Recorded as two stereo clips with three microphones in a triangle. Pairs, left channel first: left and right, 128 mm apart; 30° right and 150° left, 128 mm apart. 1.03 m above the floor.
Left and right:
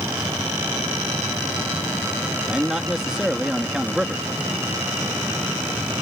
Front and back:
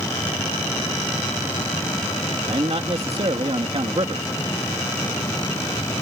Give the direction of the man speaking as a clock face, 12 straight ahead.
6 o'clock.